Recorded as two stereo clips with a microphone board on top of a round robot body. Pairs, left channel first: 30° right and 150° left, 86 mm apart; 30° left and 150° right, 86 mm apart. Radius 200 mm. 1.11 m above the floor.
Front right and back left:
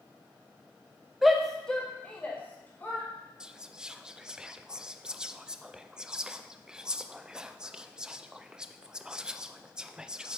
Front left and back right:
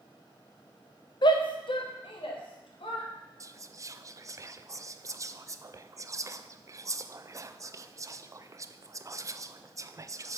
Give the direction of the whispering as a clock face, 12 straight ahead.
4 o'clock.